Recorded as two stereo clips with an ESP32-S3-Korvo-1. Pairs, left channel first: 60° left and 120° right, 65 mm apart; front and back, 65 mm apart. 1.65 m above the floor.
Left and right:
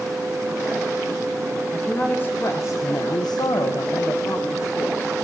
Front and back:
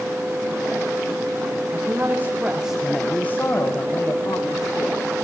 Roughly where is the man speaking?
Behind left.